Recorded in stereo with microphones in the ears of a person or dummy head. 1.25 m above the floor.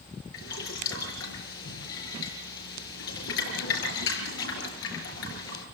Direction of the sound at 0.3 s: 80° left.